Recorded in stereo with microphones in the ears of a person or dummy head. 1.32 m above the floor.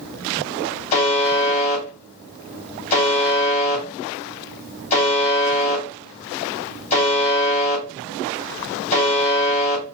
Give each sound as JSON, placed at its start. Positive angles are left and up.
{"t": 0.9, "sound": "a buzzer", "side_deg": 35, "distance_m": 1.5}